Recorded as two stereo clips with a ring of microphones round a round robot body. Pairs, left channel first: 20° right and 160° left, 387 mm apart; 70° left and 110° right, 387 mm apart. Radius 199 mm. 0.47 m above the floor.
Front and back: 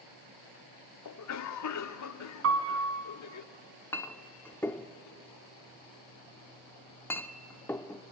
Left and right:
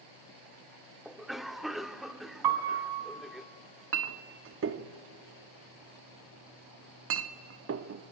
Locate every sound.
1.1 s a cough: 25° right, 1.1 m
2.4 s a piano: 145° right, 2 m
3.9 s a clink: 100° right, 0.8 m